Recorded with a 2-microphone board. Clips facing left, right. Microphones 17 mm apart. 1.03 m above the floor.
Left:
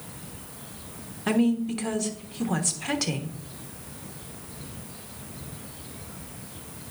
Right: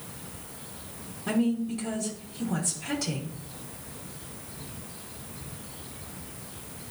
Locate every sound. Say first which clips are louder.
1.3 s a woman speaking: left 3 dB; 50° left (ahead or behind), 1.2 m